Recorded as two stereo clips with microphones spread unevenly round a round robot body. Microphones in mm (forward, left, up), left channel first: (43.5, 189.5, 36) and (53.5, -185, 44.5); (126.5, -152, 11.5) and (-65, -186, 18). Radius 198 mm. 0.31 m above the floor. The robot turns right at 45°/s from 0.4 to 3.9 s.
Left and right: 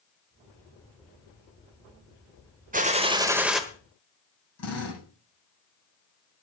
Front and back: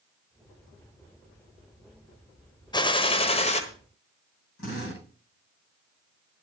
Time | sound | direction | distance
2.7 | a gunshot | 35° right | 1.4 m
4.6 | a drill | 40° left | 10 m